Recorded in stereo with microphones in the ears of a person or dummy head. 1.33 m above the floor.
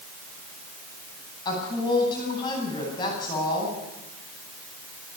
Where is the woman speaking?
20° left (ahead or behind), 9.5 m.